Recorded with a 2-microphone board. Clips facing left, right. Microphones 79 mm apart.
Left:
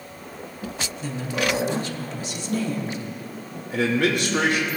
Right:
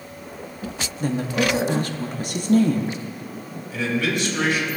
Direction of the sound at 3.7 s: 60° left (ahead or behind).